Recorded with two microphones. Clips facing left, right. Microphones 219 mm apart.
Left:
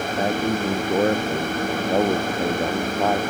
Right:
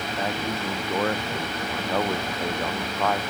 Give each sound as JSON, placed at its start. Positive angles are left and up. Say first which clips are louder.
{"t": 0.2, "sound": "a man speaking", "louder": "left 7 dB", "side_deg": 35}